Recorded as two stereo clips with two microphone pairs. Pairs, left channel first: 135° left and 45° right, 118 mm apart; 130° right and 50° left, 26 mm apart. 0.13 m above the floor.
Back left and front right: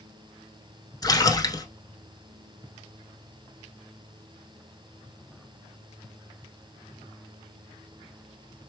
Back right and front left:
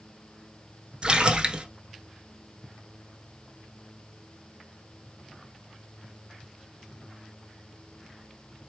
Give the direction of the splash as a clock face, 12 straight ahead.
9 o'clock.